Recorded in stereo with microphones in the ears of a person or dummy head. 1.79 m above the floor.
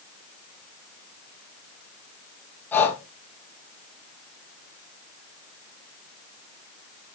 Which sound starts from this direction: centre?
Breathing, at 2.7 s.